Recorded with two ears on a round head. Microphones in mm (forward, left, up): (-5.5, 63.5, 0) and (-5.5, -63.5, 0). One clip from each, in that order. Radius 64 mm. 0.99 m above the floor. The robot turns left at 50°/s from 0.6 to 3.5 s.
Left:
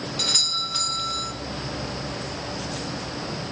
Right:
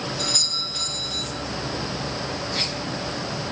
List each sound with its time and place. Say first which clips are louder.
0.2 s a doorbell: left 1 dB; 115° left, 1.2 m; by 1.3 s 80° left, 1.2 m